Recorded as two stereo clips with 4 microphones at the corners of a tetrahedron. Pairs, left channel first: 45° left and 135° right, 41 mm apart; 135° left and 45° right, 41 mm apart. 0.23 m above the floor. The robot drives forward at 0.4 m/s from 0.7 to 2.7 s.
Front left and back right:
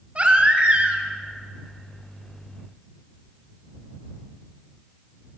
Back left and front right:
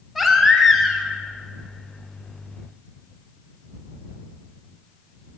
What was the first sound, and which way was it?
A baby crying, 125° right.